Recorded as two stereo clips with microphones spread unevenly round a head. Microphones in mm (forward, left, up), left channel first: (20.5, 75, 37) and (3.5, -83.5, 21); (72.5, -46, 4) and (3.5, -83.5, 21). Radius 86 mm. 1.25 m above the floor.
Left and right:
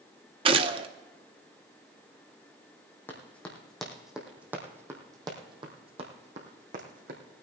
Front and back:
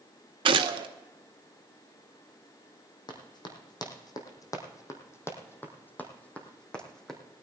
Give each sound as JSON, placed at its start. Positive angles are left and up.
{"t": 0.5, "sound": "a gunshot", "azimuth_deg": -155, "distance_m": 0.8}
{"t": 3.1, "sound": "running footsteps", "azimuth_deg": 10, "distance_m": 3.5}